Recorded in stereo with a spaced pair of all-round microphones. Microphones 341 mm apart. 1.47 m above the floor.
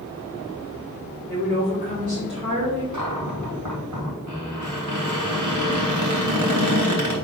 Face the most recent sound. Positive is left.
turn(degrees=-55)  # may be behind; listen again after turning